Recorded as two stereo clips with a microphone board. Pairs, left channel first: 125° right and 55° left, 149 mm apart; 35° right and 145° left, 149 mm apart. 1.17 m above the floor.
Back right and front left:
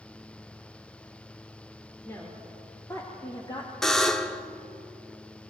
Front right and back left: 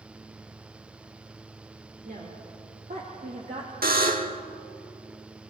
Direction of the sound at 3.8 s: 150° left.